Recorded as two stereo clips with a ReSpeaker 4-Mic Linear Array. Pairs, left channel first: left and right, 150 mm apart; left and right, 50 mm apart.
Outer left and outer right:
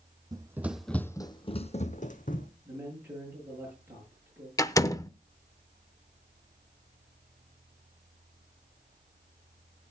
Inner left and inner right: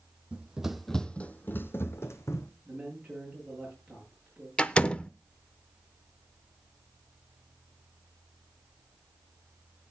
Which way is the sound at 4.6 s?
20° left (ahead or behind).